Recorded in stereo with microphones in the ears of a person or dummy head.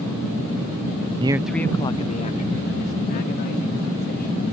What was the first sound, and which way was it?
A man speaking, 30° right (ahead or behind).